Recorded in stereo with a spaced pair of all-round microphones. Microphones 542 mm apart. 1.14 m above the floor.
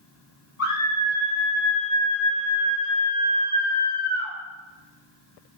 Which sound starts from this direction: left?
A scream, at 0.6 s.